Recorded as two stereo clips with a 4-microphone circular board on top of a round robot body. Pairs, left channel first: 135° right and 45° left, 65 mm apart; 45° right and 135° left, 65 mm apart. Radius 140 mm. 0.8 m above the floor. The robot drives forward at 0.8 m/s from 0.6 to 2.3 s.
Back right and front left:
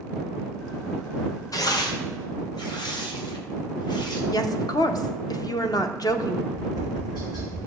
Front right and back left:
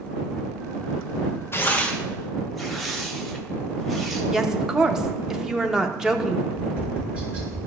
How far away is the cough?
I don't hear a cough.